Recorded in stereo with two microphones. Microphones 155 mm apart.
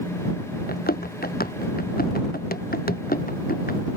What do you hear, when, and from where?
0.7 s running footsteps: 75° left (ahead or behind); by 3.8 s 70° left (ahead or behind)